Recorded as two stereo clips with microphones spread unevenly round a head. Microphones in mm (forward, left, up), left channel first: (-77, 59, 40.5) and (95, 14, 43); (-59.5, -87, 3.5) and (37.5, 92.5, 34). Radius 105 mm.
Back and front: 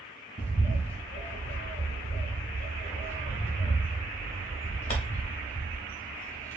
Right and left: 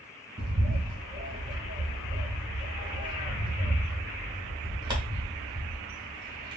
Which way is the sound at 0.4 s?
120° left.